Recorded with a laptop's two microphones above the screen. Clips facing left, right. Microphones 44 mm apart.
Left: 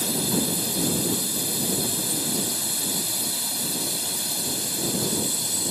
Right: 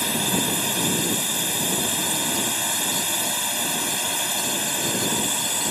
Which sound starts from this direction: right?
A drone, at 0.0 s.